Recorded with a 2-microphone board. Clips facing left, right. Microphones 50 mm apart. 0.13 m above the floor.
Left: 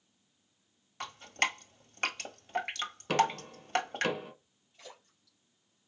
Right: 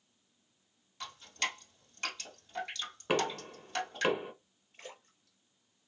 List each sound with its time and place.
1.0 s dripping: 45° left (ahead or behind), 1.3 m
3.1 s knocking: 20° right (ahead or behind), 1.0 m
4.7 s a splash: 45° right (ahead or behind), 2.5 m